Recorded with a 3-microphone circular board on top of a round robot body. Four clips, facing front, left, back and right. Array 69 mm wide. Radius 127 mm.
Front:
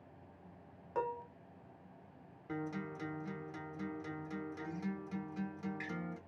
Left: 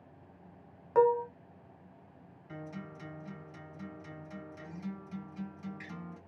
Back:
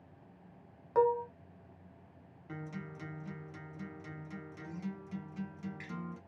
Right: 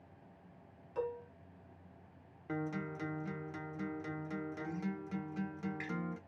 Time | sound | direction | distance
0.9 | dishes clattering | 105° left | 0.5 m
2.5 | a guitar | 75° right | 0.8 m